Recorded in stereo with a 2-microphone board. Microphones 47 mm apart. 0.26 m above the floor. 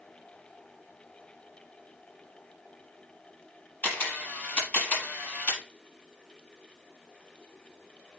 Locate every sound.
3.8 s a camera shutter: 45° left (ahead or behind), 6 m